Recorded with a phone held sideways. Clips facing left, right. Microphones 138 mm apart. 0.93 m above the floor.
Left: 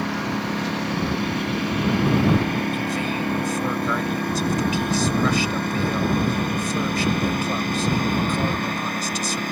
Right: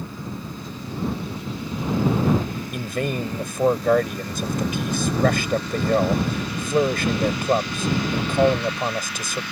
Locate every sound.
0.0 s a lawn mower: 70° left (ahead or behind); by 9.5 s 45° left (ahead or behind)
2.7 s a man speaking: 55° right (ahead or behind)